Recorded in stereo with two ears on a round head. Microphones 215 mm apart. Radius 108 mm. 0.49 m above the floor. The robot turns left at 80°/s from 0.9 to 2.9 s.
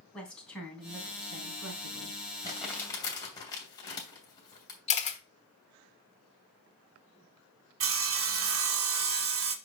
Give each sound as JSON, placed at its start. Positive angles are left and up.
{"t": 0.1, "sound": "a woman speaking", "azimuth_deg": 5, "distance_m": 3.5}
{"t": 2.4, "sound": "crumpling", "side_deg": -20, "distance_m": 2.5}
{"t": 4.9, "sound": "a camera shutter", "side_deg": 30, "distance_m": 1.3}
{"t": 7.8, "sound": "sawing", "side_deg": -60, "distance_m": 1.1}